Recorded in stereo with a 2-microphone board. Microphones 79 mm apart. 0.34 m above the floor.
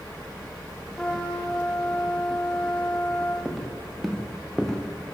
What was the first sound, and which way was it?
A trumpet, 10° left (ahead or behind).